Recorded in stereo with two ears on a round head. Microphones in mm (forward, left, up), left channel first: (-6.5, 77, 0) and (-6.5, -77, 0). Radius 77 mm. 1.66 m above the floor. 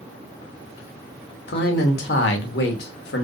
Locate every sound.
1.5 s a man speaking: 65° left (ahead or behind), 0.7 m